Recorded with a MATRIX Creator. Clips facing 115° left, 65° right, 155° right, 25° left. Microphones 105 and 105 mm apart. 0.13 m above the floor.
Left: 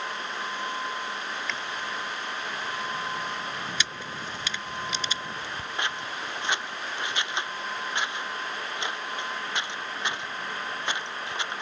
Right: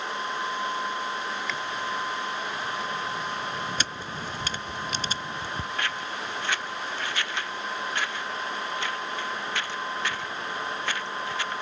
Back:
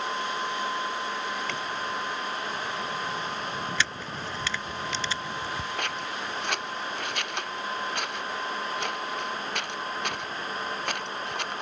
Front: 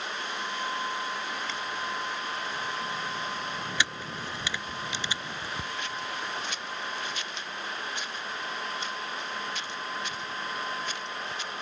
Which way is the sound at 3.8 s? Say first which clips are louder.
Right 1 dB, back 1 dB; 45° right.